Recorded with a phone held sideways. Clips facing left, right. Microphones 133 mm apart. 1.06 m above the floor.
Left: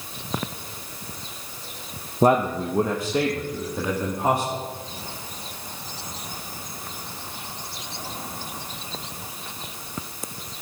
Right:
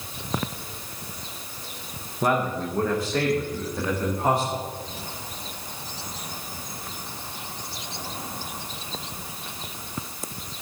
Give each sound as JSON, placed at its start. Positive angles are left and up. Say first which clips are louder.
{"t": 2.2, "sound": "a man speaking", "louder": "left 5 dB", "side_deg": 35, "distance_m": 0.7}